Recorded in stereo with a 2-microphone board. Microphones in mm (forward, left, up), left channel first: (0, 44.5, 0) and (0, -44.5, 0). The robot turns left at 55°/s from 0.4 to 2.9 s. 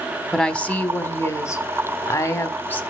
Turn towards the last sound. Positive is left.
turn(degrees=30)